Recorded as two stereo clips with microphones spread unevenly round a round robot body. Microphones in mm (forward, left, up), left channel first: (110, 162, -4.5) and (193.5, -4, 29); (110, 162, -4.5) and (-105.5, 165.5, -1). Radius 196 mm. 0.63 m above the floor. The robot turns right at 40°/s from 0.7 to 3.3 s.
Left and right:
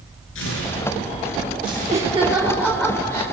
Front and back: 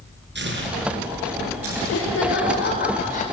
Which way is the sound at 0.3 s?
145° left.